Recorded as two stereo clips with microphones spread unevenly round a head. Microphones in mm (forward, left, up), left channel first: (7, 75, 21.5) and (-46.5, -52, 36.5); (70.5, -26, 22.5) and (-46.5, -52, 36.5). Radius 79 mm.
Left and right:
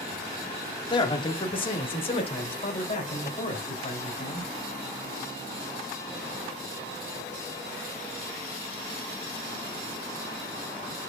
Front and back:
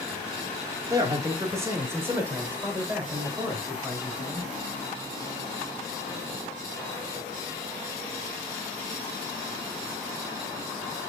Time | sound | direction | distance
0.9 | a man speaking | 125° left | 1.8 m